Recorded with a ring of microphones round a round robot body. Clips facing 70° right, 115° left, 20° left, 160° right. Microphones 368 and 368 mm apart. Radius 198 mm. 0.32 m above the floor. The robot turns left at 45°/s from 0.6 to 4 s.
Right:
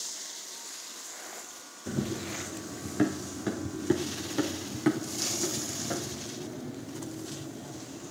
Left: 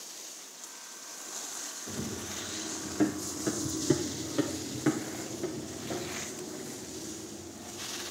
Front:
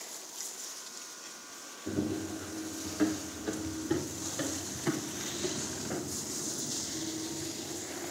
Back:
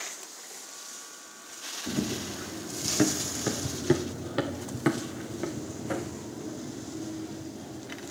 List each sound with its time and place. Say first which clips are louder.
1.9 s running footsteps: right 6 dB, back 1 dB; 90° right, 2 m; by 8.1 s 105° right, 3 m